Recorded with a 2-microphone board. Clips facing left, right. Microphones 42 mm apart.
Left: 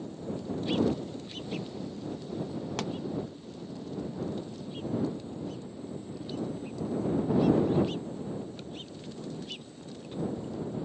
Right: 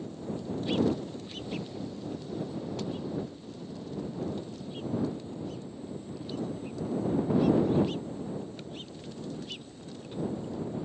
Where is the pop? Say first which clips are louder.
Left 2 dB; 75° left (ahead or behind).